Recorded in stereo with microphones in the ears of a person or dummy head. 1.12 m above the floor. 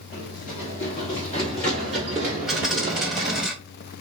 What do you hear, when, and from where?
0.1 s running footsteps: 40° left (ahead or behind), 1.4 m; by 3.5 s 35° right (ahead or behind), 1.4 m
2.5 s a dropped coin: centre (ahead or behind), 0.7 m